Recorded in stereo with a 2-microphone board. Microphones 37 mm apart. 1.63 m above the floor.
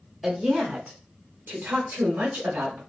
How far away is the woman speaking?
About 0.7 m.